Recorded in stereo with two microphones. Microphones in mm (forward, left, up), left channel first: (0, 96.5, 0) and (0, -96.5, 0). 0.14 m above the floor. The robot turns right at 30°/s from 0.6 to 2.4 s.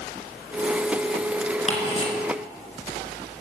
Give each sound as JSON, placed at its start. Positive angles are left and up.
{"t": 1.7, "sound": "ticking", "side_deg": 35, "distance_m": 2.0}